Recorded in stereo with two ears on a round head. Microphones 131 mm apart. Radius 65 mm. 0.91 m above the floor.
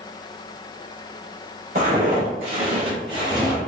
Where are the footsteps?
60° right (ahead or behind), 1.8 m; by 3.6 s 20° right (ahead or behind), 1.2 m.